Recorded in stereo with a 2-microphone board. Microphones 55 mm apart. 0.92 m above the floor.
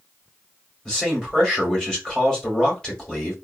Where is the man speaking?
15° left (ahead or behind), 2.5 m.